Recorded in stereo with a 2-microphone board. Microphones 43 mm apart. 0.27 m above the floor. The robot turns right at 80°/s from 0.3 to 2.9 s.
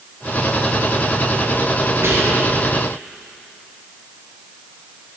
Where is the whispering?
100° right, 2 m; by 2.4 s 65° right, 2 m.